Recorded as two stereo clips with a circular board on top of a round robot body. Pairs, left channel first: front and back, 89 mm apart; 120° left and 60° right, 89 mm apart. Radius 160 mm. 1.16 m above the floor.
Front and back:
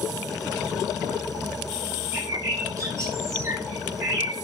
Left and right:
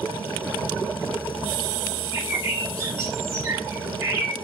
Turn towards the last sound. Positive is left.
turn(degrees=-120)